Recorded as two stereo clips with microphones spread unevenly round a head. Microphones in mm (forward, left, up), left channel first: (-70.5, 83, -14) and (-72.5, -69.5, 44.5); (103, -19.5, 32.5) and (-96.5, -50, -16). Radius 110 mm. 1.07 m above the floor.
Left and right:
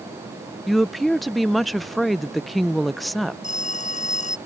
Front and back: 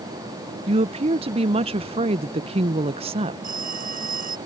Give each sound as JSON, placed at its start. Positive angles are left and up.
{"t": 0.7, "sound": "a woman speaking", "azimuth_deg": 155}
{"t": 3.4, "sound": "a phone ringing", "azimuth_deg": 130}